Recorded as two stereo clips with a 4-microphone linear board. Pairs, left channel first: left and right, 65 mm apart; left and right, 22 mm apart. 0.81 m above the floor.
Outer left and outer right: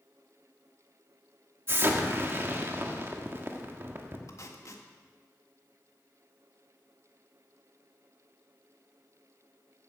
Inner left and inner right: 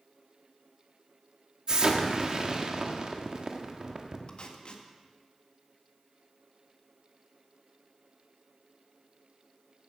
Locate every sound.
1.7 s an explosion: 40° right (ahead or behind), 1.6 m
4.3 s tape being pulled: 50° left (ahead or behind), 1.5 m